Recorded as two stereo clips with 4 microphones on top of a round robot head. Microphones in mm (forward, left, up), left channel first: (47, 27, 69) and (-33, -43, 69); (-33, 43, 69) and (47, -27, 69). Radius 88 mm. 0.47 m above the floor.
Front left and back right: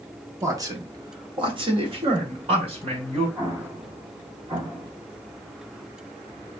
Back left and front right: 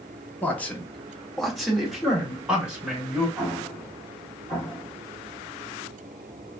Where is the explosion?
110° right, 1.7 m.